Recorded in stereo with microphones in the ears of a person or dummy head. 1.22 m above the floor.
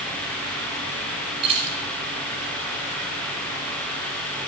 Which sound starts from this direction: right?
Keys jangling, at 1.4 s.